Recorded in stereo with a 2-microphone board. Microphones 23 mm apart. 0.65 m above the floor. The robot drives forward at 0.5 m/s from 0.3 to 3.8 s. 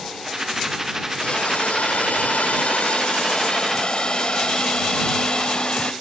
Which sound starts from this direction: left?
A hiss, at 1.2 s.